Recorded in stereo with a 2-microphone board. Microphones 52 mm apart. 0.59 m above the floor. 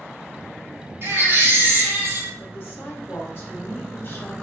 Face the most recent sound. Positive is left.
turn(degrees=45)  # may be behind; listen again after turning